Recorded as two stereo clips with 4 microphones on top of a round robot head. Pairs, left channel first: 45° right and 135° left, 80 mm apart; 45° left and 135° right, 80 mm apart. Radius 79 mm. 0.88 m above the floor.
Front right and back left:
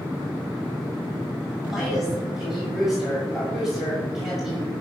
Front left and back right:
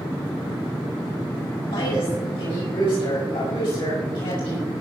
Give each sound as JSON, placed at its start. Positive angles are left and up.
{"t": 1.7, "sound": "a woman speaking", "azimuth_deg": 50, "distance_m": 6.0}